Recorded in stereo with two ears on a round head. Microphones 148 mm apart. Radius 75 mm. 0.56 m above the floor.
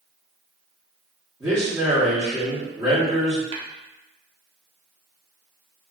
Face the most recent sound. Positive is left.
turn(degrees=-35)  # may be behind; listen again after turning